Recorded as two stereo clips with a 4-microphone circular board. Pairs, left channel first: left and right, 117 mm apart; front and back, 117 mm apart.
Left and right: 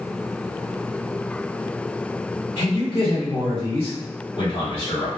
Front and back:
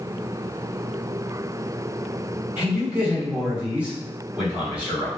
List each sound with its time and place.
2.6 s a man speaking: 105° left, 1.7 m